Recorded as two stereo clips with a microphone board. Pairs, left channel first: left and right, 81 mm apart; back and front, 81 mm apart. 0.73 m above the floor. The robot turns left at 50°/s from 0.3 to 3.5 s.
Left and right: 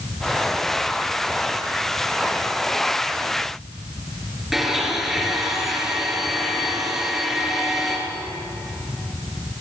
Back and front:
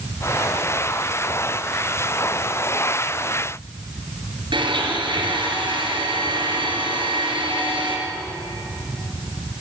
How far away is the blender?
About 4.5 m.